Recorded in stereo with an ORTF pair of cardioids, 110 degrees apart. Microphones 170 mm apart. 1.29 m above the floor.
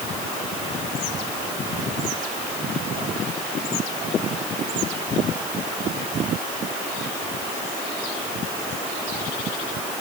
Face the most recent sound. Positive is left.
No sound to turn to.